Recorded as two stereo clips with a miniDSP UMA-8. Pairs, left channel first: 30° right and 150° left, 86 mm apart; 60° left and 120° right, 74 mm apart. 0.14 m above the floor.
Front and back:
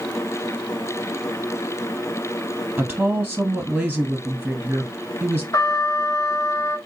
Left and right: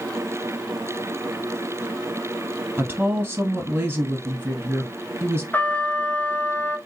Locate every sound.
2.8 s a woman speaking: 145° right, 1.2 m
5.5 s a trumpet: 5° left, 0.6 m